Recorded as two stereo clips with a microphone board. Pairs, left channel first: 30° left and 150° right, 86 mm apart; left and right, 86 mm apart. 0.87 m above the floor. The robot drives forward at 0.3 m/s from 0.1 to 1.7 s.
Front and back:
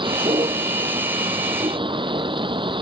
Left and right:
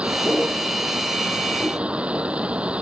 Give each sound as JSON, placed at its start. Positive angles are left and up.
{"t": 0.0, "sound": "a vehicle", "azimuth_deg": -165}